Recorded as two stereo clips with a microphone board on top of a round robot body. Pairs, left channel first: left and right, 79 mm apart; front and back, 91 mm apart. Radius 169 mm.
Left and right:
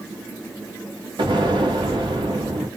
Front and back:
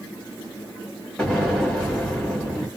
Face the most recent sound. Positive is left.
turn(degrees=-80)